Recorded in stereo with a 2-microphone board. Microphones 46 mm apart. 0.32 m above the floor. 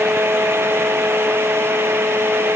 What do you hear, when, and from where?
Only background noise.